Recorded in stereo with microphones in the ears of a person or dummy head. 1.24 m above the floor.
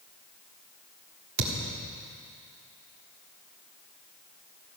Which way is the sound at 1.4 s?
50° right (ahead or behind).